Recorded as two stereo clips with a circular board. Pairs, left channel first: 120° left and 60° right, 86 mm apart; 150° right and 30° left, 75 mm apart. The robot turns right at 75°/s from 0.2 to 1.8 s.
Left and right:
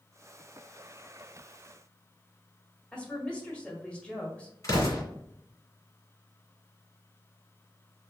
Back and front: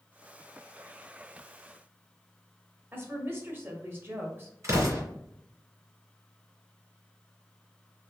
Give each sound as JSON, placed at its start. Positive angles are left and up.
{"t": 2.9, "sound": "a woman speaking", "azimuth_deg": 55, "distance_m": 1.6}
{"t": 4.6, "sound": "an explosion", "azimuth_deg": 75, "distance_m": 2.5}